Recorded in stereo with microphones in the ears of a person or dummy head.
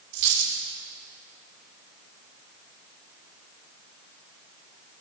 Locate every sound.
0.1 s a dropped coin: 60° right (ahead or behind), 2.5 m